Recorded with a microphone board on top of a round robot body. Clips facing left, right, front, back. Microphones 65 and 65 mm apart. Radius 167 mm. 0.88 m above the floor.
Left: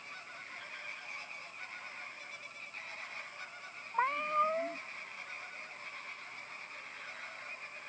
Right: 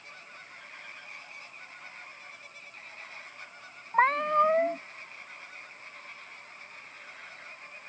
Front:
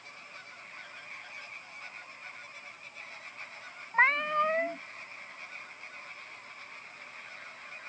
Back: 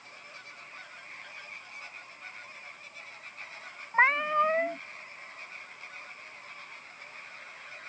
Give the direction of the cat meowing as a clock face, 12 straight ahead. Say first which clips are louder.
Right 8 dB, back 2 dB; 3 o'clock.